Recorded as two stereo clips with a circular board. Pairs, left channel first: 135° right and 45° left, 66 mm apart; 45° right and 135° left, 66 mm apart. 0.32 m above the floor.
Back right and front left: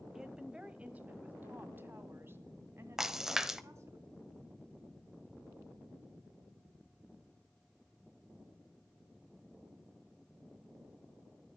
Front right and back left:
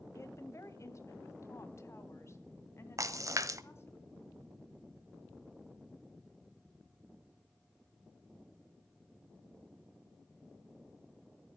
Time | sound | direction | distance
0.1 | a woman speaking | 35° right | 1.4 m
3.0 | a splash | 125° left | 0.9 m